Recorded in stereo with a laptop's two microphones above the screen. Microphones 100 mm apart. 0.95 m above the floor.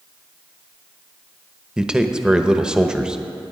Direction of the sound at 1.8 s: 10° right (ahead or behind).